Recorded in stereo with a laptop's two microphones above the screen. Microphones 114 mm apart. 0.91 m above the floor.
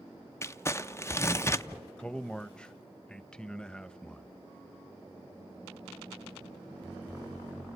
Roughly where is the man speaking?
Centre.